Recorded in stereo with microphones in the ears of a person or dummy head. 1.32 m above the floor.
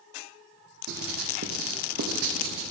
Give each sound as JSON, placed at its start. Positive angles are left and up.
{"t": 0.9, "sound": "writing", "side_deg": -50, "distance_m": 0.7}